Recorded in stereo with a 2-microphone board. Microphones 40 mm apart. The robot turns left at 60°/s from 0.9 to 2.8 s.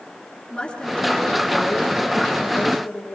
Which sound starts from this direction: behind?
A woman speaking, at 0.5 s.